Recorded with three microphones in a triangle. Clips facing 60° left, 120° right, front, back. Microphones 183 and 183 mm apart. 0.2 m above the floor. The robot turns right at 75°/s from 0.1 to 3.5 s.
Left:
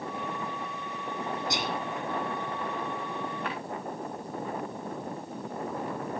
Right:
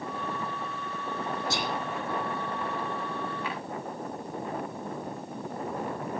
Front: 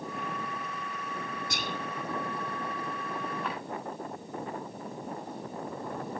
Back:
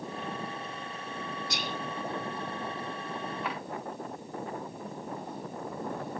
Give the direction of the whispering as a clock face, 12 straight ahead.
12 o'clock.